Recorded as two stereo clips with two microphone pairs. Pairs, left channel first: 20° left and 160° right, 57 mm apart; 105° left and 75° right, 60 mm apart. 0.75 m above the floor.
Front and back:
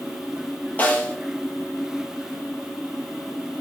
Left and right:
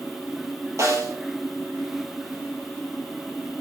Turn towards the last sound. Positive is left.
turn(degrees=-45)